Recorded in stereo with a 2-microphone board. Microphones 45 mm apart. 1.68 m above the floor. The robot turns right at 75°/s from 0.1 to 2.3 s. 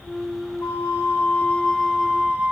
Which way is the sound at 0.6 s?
80° left.